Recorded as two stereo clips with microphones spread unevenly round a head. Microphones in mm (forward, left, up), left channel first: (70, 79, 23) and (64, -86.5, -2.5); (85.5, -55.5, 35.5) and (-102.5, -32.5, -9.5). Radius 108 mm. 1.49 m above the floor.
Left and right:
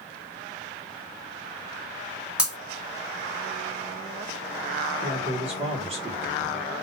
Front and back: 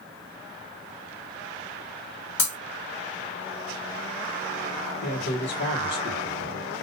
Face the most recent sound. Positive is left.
turn(degrees=-40)